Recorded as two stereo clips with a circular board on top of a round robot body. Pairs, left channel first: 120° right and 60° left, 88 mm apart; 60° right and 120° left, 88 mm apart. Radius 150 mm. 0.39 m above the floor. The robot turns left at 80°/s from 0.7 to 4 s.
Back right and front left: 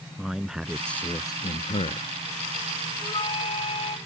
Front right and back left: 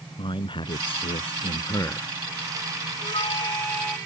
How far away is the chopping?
I don't hear chopping.